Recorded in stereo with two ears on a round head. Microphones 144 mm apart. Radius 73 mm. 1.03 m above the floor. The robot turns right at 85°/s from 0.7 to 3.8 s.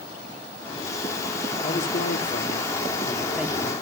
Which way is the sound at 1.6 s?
30° left.